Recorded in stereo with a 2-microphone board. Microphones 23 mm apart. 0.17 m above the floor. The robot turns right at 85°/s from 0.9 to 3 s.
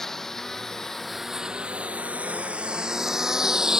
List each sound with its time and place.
0.0 s a lawn mower: 20° left (ahead or behind); by 3.8 s 30° right (ahead or behind)